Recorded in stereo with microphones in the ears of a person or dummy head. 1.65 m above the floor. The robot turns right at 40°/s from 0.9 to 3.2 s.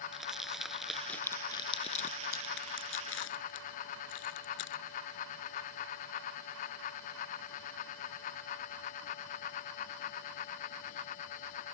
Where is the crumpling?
Centre (ahead or behind); by 4.8 s 85° left.